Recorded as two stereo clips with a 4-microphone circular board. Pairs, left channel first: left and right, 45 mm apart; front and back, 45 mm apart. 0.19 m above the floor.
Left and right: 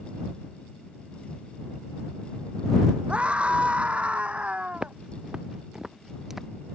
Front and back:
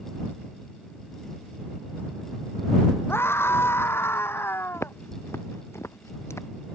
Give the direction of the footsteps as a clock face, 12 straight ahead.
1 o'clock.